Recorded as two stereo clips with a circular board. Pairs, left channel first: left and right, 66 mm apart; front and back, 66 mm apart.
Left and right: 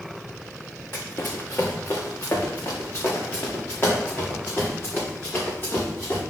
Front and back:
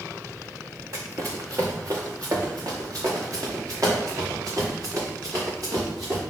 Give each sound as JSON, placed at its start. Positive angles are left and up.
{"t": 0.9, "sound": "running footsteps", "azimuth_deg": 145, "distance_m": 1.6}